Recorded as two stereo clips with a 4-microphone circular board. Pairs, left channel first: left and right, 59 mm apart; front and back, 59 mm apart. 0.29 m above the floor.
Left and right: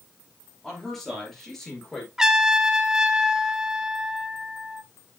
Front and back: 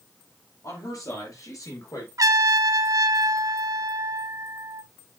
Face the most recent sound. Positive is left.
turn(degrees=-170)